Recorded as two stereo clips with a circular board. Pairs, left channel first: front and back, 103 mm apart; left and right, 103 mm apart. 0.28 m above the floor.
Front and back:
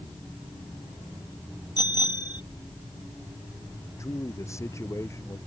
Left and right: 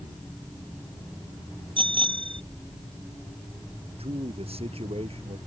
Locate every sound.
1.8 s a bicycle bell: 50° right
4.0 s a man speaking: 65° right